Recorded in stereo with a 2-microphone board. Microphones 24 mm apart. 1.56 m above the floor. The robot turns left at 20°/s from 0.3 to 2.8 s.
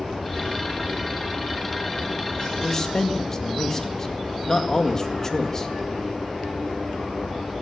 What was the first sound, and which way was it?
A man speaking, 20° left (ahead or behind).